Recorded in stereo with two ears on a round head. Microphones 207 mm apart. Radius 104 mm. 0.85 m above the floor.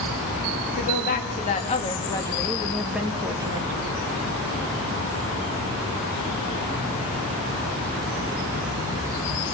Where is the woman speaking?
45° left (ahead or behind), 1.7 m; by 3.7 s 25° right (ahead or behind), 1.3 m.